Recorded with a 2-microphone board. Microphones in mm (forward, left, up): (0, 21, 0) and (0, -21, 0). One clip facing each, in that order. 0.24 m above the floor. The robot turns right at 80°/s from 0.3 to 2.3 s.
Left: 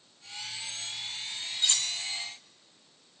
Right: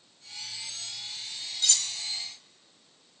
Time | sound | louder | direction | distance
1.6 | cutlery clinking | left 1 dB | 25° left (ahead or behind) | 0.6 m